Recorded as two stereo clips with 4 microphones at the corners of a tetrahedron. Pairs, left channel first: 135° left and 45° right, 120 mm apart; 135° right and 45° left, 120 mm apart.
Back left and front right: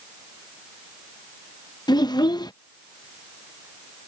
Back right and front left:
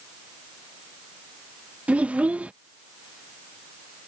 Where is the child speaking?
115° left.